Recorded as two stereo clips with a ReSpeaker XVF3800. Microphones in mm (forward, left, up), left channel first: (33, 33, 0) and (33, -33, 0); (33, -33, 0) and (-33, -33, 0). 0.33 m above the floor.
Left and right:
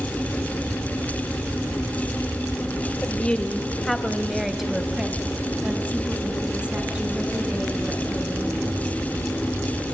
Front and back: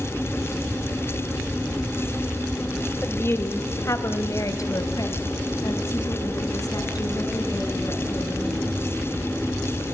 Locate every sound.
3.0 s a woman speaking: 30° left, 1.3 m; by 8.6 s 25° right, 4 m